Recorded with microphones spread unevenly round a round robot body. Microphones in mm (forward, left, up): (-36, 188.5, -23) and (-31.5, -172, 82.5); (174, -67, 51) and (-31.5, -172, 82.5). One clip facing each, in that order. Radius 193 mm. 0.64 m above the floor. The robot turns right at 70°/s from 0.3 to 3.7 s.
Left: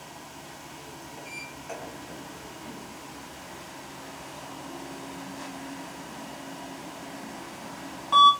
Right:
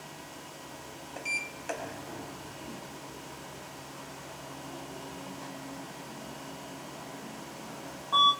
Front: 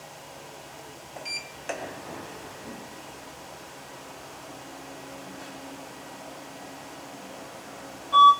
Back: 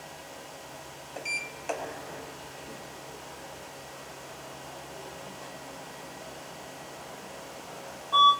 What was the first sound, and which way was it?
A sliding door, 85° right.